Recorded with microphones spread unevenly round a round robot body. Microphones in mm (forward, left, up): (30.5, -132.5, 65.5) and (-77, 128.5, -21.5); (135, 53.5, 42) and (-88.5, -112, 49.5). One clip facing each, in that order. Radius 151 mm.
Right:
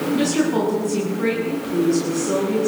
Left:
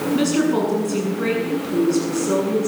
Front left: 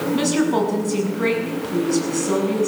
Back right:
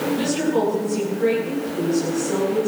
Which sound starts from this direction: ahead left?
A woman speaking, at 0.1 s.